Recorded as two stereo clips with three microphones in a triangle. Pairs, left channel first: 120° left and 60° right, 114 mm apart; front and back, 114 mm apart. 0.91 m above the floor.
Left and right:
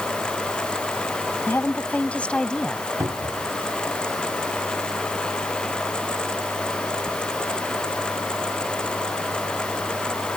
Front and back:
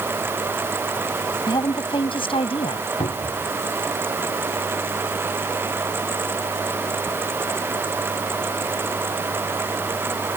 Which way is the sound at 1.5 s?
50° left.